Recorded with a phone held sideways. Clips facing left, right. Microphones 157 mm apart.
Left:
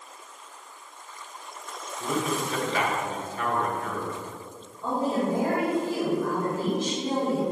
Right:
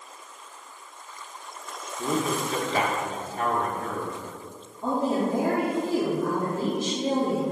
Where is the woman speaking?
55° right (ahead or behind), 2 m.